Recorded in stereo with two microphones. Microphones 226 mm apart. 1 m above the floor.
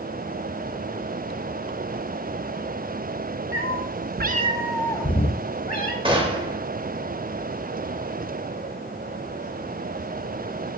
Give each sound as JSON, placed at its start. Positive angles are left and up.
{"t": 3.5, "sound": "a cat meowing", "side_deg": -65, "distance_m": 0.9}
{"t": 6.0, "sound": "a gunshot", "side_deg": -25, "distance_m": 1.0}